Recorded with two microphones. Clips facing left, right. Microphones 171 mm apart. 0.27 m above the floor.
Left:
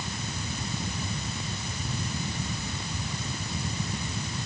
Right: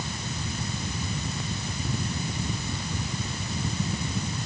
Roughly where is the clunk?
No clunk in this recording.